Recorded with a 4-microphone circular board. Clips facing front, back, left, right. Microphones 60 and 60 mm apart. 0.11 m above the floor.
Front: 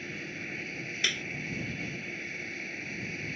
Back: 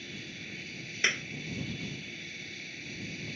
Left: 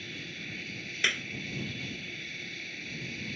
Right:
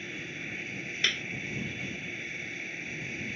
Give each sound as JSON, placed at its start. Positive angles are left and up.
{"t": 0.0, "sound": "an aircraft", "azimuth_deg": -30}
{"t": 1.0, "sound": "a clap", "azimuth_deg": 150}